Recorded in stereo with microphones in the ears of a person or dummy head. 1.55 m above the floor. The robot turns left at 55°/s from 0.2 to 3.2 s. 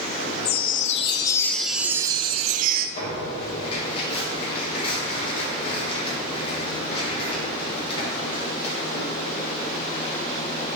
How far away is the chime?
About 0.5 m.